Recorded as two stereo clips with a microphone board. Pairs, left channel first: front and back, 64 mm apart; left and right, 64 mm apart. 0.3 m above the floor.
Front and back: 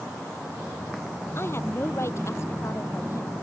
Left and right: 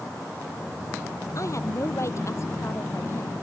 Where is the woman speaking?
50° left; by 3.3 s 40° left.